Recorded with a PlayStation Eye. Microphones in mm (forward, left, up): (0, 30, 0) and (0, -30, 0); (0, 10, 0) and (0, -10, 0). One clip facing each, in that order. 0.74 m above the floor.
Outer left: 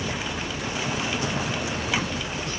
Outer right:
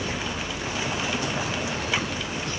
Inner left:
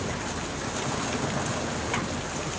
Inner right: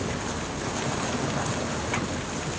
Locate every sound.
Only background noise.